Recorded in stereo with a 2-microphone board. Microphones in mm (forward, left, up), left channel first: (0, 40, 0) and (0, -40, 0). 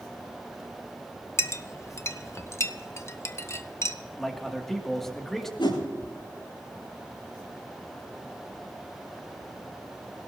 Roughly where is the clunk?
No clunk in this recording.